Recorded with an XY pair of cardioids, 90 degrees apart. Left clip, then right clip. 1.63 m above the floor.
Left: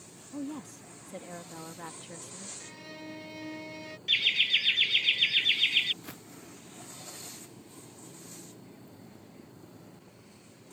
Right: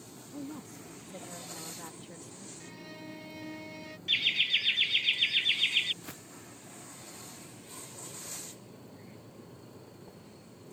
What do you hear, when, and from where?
0.3 s a woman speaking: 40° left
2.6 s a violin: 25° left
4.1 s laughter: 25° left
6.0 s footsteps: 10° left